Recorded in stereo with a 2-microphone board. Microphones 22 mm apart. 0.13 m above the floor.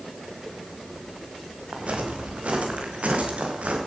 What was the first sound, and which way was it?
Footsteps, 65° right (ahead or behind).